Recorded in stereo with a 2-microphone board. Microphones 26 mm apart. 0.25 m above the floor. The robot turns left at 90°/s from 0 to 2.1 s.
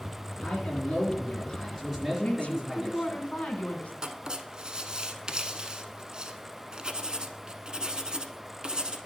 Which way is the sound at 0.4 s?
140° left.